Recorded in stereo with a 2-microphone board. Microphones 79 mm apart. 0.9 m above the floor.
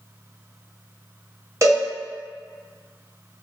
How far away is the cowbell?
About 0.9 m.